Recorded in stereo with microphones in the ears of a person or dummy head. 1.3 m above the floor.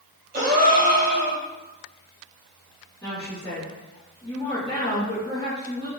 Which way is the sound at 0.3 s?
40° right (ahead or behind).